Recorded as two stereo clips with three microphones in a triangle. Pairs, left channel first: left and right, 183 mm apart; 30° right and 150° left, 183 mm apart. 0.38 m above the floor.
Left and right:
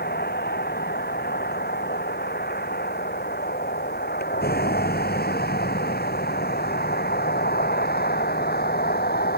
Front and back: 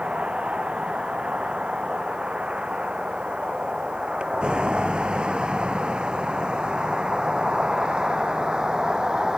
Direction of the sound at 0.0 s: 65° left.